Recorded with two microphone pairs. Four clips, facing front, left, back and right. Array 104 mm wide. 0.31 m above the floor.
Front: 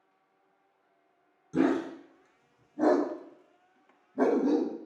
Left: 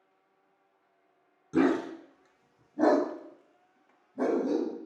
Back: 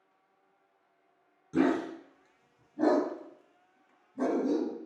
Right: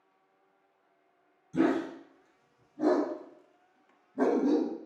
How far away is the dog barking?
About 1.3 m.